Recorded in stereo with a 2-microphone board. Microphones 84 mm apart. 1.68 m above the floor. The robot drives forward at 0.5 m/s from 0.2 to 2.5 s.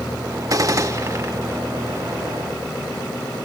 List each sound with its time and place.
0.5 s a gunshot: 40° right (ahead or behind), 1.0 m; by 1.3 s 30° right (ahead or behind), 1.3 m